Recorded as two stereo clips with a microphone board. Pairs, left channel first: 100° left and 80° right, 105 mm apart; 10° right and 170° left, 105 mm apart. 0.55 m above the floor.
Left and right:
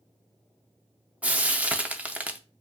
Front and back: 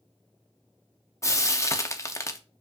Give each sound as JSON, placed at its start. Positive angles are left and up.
{"t": 1.2, "sound": "frying", "azimuth_deg": -20, "distance_m": 0.6}